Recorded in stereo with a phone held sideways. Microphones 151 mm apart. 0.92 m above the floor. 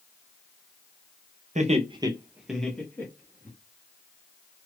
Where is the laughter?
50° right (ahead or behind), 0.7 m; by 3.5 s 20° left (ahead or behind), 1.5 m.